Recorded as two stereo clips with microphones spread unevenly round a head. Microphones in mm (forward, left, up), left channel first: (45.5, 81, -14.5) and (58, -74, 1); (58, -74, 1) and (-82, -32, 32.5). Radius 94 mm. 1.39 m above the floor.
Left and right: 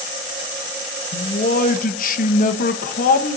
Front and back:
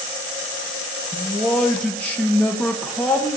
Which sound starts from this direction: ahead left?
A man speaking, at 1.1 s.